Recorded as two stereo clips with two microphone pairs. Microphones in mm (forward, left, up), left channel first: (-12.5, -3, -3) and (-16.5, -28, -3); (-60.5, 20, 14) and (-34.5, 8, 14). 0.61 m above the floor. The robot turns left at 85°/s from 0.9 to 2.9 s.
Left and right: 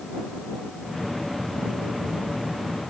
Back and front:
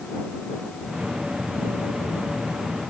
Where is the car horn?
I don't hear a car horn.